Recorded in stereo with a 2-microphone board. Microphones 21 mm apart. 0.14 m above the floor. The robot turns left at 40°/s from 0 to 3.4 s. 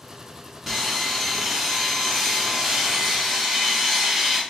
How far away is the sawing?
About 1.6 m.